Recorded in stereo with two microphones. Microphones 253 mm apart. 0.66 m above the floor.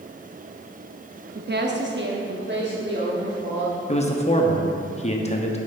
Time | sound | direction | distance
1.4 | a woman speaking | 40° right (ahead or behind) | 0.7 m
3.9 | a man speaking | 30° left (ahead or behind) | 0.8 m